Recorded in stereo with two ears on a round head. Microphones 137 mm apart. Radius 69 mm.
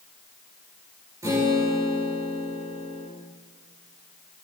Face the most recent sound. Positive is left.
turn(degrees=-20)  # may be behind; listen again after turning